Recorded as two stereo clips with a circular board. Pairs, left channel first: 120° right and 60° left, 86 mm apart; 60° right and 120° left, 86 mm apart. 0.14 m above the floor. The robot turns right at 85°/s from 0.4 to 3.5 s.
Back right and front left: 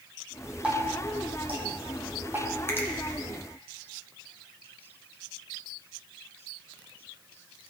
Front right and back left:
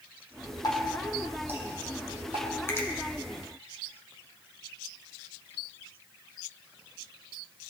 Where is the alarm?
I don't hear an alarm.